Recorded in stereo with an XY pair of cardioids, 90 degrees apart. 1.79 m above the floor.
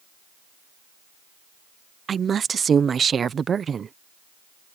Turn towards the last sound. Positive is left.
turn(degrees=-50)